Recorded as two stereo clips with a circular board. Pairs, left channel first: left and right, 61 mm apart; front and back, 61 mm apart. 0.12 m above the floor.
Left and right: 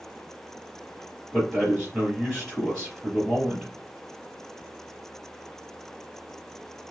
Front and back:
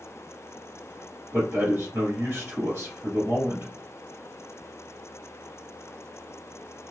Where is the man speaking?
175° left, 2 m.